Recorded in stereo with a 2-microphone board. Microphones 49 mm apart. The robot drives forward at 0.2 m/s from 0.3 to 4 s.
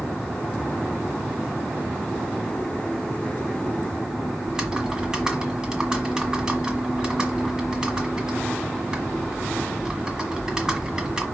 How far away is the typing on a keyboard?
About 1.4 m.